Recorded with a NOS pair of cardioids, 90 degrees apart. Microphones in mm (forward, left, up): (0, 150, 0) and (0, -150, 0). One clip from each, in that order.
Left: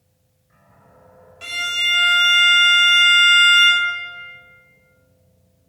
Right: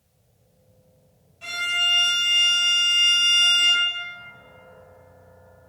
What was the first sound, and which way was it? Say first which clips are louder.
A violin: left 2 dB; 60° left.